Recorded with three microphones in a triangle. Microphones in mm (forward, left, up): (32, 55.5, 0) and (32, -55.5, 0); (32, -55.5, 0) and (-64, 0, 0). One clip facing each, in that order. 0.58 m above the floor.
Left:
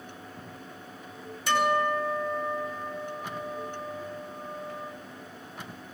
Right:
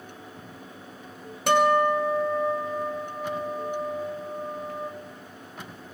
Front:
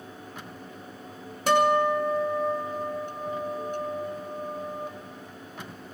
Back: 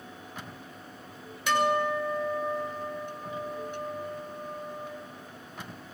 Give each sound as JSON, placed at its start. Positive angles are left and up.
{"t": 1.5, "sound": "a guitar", "azimuth_deg": -75, "distance_m": 2.5}